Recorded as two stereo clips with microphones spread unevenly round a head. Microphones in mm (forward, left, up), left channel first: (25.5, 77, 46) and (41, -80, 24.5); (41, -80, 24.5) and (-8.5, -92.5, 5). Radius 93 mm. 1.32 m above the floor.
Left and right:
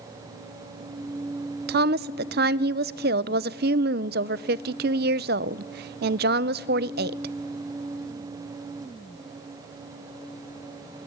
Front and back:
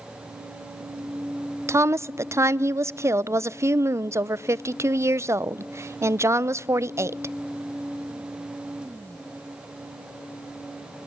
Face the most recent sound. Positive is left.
turn(degrees=-120)